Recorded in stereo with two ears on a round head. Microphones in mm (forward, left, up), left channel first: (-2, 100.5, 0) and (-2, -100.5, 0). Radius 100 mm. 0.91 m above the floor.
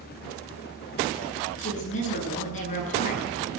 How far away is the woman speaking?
About 9.5 m.